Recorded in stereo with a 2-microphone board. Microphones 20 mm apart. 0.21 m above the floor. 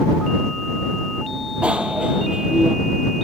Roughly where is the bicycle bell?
Right.